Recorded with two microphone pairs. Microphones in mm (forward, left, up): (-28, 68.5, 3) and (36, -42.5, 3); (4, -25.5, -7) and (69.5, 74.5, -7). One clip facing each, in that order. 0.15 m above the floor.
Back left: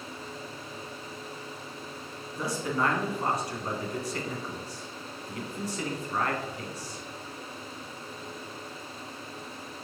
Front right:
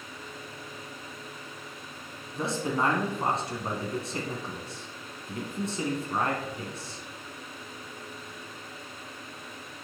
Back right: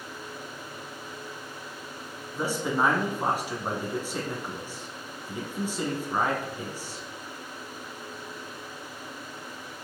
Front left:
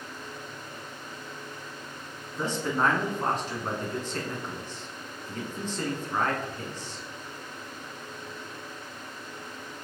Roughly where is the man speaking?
Ahead right.